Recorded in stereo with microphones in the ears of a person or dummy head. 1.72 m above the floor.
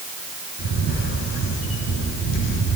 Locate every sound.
0.6 s a camera shutter: 80° left, 5 m